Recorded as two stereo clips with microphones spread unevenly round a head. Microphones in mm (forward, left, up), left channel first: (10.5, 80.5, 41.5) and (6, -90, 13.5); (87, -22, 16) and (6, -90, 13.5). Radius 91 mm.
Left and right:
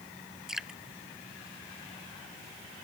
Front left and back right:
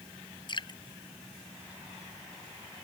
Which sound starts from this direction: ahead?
Dripping, at 0.5 s.